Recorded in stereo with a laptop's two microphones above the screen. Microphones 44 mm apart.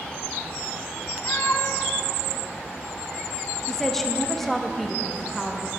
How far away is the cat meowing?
About 1.5 m.